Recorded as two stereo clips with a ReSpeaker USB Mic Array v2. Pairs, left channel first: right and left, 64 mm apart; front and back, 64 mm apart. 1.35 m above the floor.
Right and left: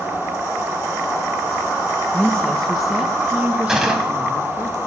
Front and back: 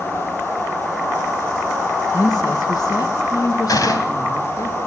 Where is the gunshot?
5° left, 2.5 m.